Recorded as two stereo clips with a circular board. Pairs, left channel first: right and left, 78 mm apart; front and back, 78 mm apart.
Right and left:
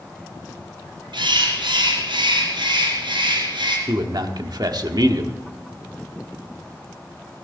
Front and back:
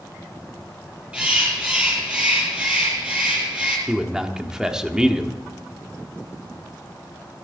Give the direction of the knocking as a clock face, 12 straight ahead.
No knocking in this recording.